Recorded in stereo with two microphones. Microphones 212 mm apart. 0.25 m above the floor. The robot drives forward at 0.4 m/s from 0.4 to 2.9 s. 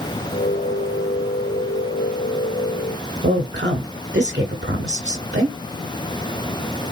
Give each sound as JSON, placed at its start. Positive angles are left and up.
{"t": 3.2, "sound": "a woman speaking", "side_deg": -60, "distance_m": 2.5}